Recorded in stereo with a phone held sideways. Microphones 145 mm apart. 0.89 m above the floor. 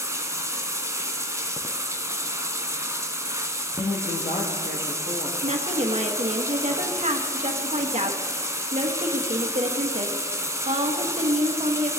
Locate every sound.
0.0 s running water: 20° right (ahead or behind), 0.8 m
3.8 s a woman speaking: 65° left (ahead or behind), 1.0 m
5.4 s a woman speaking: 50° right (ahead or behind), 1.1 m